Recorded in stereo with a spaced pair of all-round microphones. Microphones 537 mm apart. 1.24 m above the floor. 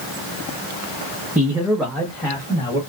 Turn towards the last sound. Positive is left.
turn(degrees=10)  # may be behind; listen again after turning